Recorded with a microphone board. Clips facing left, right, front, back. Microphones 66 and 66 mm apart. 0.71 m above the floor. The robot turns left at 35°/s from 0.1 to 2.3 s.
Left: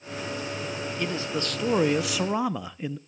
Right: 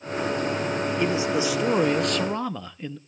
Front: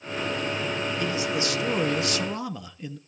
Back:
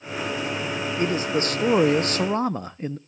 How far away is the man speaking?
About 0.6 m.